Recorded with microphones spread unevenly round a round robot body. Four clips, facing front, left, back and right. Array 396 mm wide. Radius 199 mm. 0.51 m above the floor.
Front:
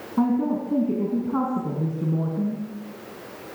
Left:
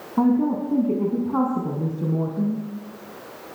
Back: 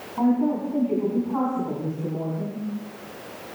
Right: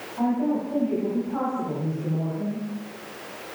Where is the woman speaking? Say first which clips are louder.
Left 4 dB, back 1 dB; 50° left, 6 m.